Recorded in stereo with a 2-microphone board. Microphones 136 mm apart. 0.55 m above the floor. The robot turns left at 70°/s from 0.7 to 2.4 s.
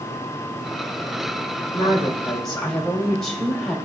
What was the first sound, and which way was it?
A woman speaking, 50° left.